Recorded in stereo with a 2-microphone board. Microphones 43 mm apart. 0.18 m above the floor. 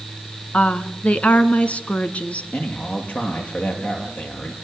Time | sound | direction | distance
0.5 | a woman speaking | 35° left (ahead or behind) | 1.7 m
2.5 | a man speaking | 40° left (ahead or behind) | 5.5 m